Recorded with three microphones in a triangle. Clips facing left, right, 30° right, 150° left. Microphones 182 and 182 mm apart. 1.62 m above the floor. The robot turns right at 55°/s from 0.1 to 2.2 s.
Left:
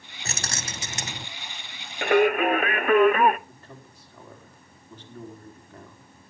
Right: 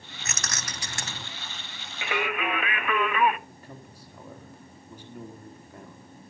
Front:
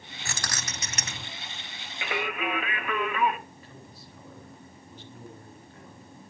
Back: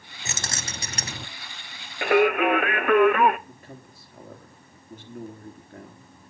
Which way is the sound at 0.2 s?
100° left.